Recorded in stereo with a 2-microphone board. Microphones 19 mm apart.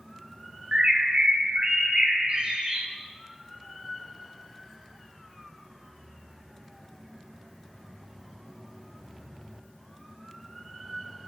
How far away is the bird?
About 1.9 m.